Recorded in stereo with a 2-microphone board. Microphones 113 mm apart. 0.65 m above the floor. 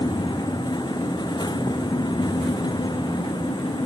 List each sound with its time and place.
Only background noise.